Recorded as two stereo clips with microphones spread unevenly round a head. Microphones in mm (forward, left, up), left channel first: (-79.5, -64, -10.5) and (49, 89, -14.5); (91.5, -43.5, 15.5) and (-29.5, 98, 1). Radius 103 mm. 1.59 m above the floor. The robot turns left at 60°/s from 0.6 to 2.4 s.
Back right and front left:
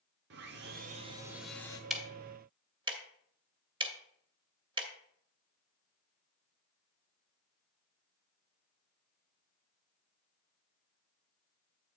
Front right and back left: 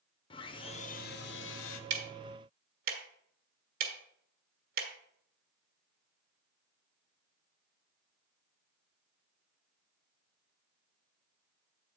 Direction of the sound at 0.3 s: 10° left.